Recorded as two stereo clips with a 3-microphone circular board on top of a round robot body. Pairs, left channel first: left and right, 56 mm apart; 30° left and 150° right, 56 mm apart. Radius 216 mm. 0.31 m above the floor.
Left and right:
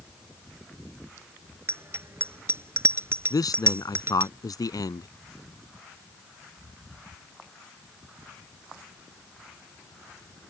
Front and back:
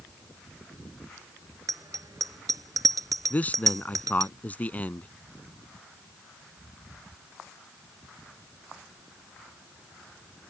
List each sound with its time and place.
1.7 s a bicycle bell: 135° right
3.3 s a man speaking: 95° left